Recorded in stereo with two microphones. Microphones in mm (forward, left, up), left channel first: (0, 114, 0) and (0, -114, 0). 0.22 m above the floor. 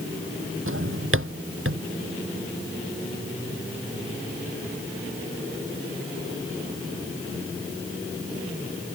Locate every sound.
0.7 s a drawer: 65° right (ahead or behind)